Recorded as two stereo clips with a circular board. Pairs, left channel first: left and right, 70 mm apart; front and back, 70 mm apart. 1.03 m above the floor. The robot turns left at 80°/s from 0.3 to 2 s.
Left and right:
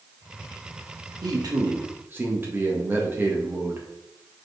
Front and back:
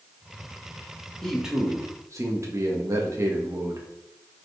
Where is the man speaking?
80° right, 1.7 m; by 3.9 s 145° right, 1.7 m.